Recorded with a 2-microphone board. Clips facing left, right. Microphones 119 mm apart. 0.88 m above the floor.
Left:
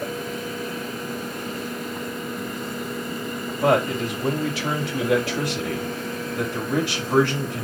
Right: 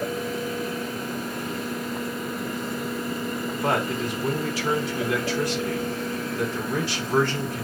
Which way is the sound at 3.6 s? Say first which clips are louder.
Left 6 dB; 85° left.